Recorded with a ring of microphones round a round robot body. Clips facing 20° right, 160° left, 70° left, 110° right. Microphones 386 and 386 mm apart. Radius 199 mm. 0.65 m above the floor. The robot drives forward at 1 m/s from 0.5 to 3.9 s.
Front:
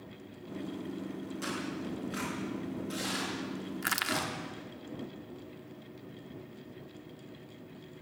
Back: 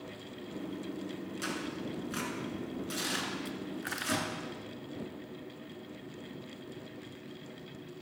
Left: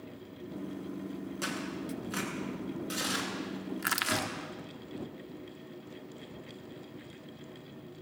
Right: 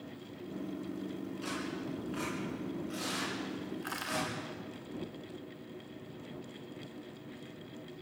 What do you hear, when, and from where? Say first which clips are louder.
1.4 s tearing paper: front 1 dB, left 2 dB; 85° left, 7 m; by 4.3 s 105° left, 7 m
3.8 s crushing: back 1 dB, left 2 dB; 30° left, 1.5 m; by 4.3 s 35° left, 1.4 m